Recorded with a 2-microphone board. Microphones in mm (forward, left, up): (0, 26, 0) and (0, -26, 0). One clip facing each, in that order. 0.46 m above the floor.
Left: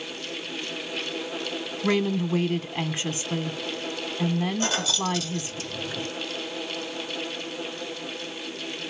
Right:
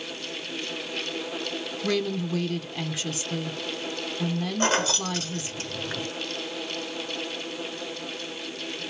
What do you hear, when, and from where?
1.8 s a woman speaking: 30° left (ahead or behind), 1.0 m
4.6 s keys jangling: 40° right (ahead or behind), 1.1 m